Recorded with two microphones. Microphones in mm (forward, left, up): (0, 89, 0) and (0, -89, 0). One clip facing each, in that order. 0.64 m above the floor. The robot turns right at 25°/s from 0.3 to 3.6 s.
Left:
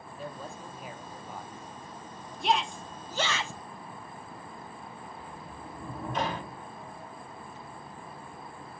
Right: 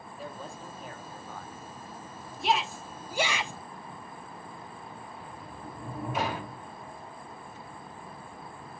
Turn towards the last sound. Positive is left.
turn(degrees=-5)  # may be behind; listen again after turning